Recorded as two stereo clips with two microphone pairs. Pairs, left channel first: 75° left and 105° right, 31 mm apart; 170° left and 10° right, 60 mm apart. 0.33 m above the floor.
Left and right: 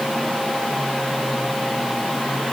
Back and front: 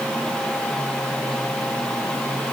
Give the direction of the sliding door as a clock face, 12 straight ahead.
I don't hear a sliding door.